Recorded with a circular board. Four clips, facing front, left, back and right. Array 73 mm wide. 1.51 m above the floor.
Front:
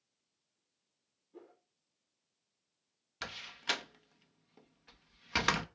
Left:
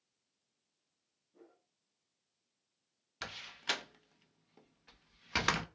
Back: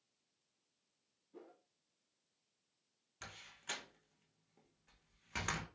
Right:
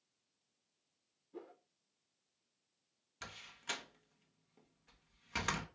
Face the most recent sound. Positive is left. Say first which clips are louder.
# left 6 dB, front 11 dB
turn(degrees=35)